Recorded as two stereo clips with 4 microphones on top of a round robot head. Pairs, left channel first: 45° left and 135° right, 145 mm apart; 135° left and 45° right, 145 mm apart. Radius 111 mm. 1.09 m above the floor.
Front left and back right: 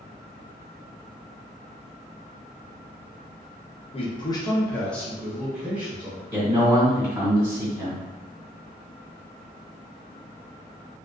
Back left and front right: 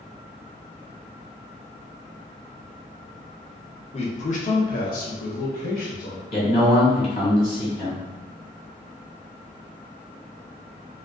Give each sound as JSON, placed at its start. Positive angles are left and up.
{"t": 3.9, "sound": "a man speaking", "azimuth_deg": 90, "distance_m": 0.8}
{"t": 6.3, "sound": "a man speaking", "azimuth_deg": 165, "distance_m": 1.7}